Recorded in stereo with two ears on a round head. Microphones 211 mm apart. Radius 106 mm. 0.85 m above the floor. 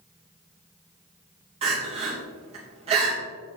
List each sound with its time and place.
1.6 s crying: 25° right (ahead or behind), 3 m